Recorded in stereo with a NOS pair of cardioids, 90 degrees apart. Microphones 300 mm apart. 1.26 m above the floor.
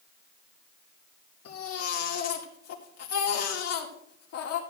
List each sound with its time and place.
1.4 s a baby crying: 60° left, 2 m